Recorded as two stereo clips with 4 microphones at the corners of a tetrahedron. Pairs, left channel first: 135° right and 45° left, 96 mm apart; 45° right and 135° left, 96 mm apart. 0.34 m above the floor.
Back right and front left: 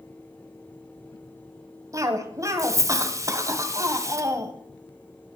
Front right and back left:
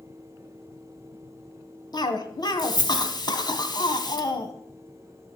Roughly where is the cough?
Ahead.